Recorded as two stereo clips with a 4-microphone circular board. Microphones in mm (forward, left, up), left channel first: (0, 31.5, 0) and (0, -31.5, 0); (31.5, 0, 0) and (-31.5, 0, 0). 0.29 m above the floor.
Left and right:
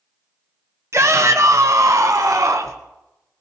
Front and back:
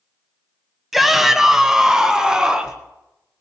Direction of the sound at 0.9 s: 95° right.